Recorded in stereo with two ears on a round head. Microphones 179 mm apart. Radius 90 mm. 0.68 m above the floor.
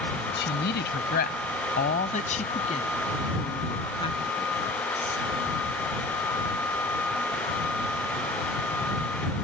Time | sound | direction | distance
0.4 | a woman speaking | 65° left (ahead or behind) | ?